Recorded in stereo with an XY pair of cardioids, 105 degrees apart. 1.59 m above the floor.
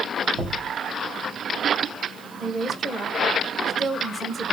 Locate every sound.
0.3 s knocking: 60° right, 2 m
2.4 s a woman speaking: 25° right, 1.1 m